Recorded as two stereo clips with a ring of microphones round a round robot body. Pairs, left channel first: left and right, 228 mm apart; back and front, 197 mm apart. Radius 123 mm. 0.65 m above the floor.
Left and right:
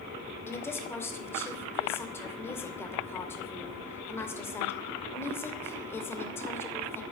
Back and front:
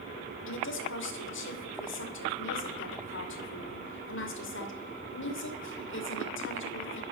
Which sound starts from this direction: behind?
A woman speaking, at 0.5 s.